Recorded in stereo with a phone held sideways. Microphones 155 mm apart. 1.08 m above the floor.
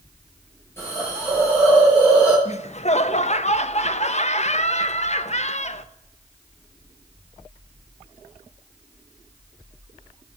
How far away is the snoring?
I don't hear snoring.